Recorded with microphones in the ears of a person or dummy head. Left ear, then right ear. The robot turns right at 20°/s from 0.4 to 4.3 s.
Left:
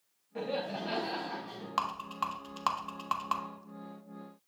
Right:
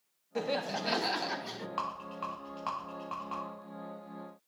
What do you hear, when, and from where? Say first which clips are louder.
0.3 s laughter: right 2 dB; 80° right, 0.7 m; by 1.7 s 70° right (ahead or behind), 0.7 m
1.8 s a rattle: left 5 dB; 20° left (ahead or behind), 1.1 m; by 3.4 s 45° left (ahead or behind), 1.1 m